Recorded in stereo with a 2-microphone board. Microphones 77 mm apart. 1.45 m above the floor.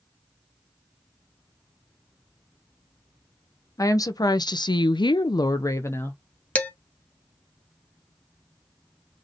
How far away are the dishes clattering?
About 1.0 m.